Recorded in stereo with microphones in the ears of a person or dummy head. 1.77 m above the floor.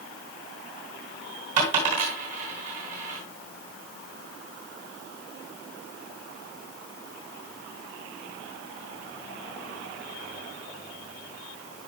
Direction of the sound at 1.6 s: 40° right (ahead or behind).